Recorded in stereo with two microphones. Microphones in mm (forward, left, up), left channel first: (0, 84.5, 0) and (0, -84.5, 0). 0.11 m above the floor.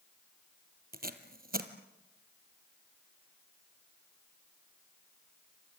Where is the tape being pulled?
65° right (ahead or behind), 1.7 m.